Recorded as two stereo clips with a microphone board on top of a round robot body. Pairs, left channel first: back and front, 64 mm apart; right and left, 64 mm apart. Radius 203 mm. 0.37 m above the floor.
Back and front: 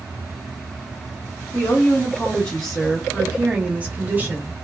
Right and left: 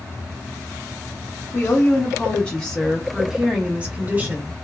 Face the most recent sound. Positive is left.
turn(degrees=45)